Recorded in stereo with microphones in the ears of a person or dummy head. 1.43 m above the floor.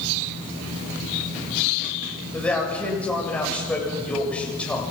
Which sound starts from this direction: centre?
A man speaking, at 2.3 s.